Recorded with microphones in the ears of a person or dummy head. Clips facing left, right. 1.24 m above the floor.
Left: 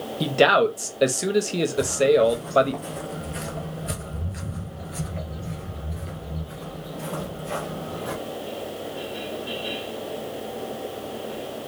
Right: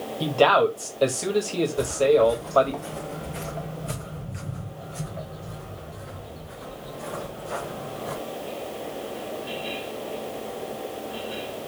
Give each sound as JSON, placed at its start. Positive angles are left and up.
{"t": 0.2, "sound": "a man speaking", "side_deg": 20, "distance_m": 1.1}
{"t": 1.8, "sound": "footsteps", "side_deg": 0, "distance_m": 2.0}